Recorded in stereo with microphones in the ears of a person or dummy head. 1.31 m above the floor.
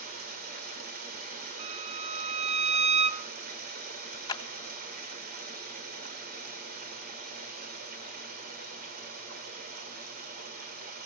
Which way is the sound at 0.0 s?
50° right (ahead or behind).